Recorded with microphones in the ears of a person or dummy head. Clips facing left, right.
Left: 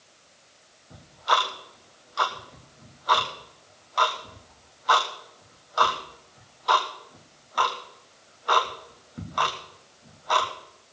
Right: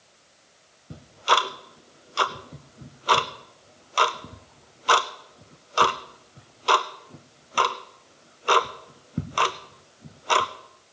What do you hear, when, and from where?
0.9 s ticking: 35° right (ahead or behind), 0.5 m